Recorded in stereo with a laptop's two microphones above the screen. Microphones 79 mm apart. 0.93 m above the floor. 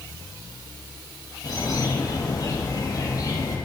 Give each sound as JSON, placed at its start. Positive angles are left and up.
{"t": 1.4, "sound": "a bird", "side_deg": 55, "distance_m": 4.0}